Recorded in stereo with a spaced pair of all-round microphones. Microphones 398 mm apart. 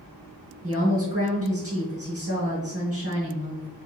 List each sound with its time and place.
0.6 s a woman speaking: 25° right (ahead or behind), 1.4 m